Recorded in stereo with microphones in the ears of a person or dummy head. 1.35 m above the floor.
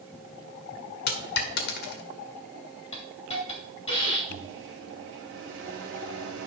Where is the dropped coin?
60° left (ahead or behind), 1.4 m.